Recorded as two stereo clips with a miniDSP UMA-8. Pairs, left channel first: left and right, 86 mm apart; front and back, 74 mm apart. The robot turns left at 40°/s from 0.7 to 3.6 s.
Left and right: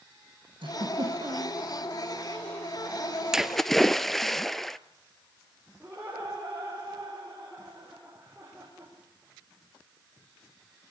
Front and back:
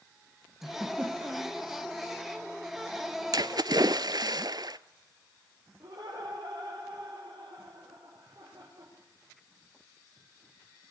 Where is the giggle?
95° right, 4 m; by 1.6 s 130° right, 4 m.